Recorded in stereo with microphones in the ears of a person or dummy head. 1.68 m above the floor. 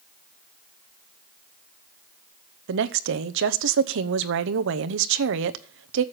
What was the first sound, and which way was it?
A woman speaking, 65° right (ahead or behind).